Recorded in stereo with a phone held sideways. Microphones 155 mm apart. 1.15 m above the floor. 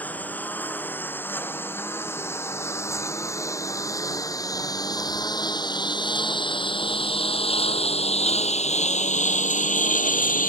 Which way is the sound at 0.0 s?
10° left (ahead or behind).